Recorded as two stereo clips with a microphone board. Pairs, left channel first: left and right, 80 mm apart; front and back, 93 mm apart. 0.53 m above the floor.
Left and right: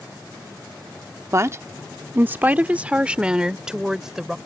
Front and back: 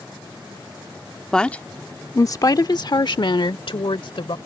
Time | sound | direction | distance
1.3 | a woman speaking | 80° right | ?